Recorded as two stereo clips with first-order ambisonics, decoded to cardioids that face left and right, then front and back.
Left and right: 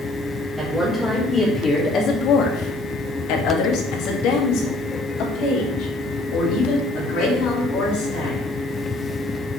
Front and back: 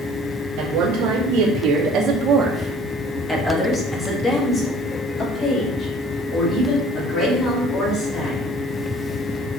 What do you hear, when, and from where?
0.6 s a woman speaking: 170° right, 1.4 m; by 8.5 s 50° left, 4.5 m